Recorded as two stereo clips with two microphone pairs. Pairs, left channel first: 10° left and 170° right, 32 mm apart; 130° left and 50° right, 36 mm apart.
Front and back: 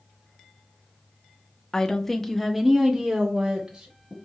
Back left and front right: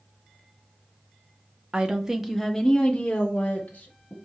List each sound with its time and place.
1.7 s a woman speaking: 40° right, 0.7 m; by 4.1 s 145° left, 1.1 m